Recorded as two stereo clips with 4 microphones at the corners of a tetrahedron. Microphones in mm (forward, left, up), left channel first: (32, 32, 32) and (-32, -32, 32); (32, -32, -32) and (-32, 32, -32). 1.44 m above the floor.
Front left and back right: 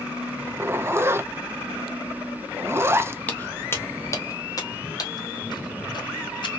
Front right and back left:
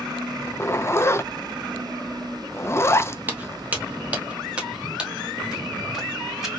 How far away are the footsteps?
About 1.5 m.